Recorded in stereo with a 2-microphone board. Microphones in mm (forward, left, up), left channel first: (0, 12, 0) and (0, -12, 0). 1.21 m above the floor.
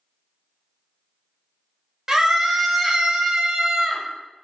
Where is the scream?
15° right (ahead or behind), 0.7 m.